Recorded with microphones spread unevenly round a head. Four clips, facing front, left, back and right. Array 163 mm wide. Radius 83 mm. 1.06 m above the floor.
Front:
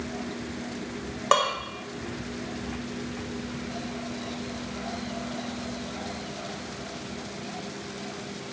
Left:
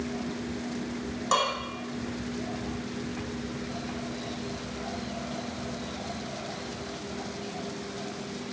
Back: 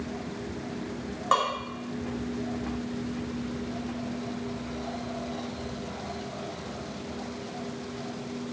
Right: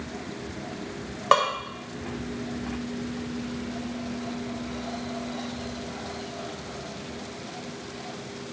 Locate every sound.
1.3 s dishes clattering: 55° right, 1.4 m